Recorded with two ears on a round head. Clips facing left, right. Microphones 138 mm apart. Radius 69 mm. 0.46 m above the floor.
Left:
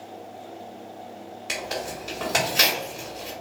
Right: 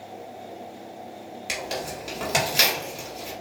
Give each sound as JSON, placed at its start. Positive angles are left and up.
{"t": 1.5, "sound": "tearing paper", "side_deg": -15, "distance_m": 1.1}